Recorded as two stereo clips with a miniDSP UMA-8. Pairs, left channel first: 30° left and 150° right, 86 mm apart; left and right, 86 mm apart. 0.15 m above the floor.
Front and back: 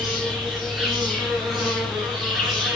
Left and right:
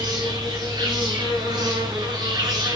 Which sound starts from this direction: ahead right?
An insect, at 0.0 s.